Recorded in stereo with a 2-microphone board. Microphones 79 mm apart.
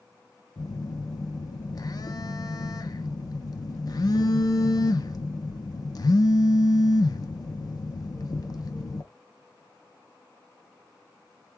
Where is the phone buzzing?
50° left (ahead or behind), 0.6 m.